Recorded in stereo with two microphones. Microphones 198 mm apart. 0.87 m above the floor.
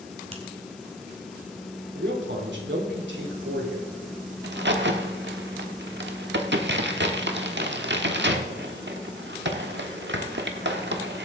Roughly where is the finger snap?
Right.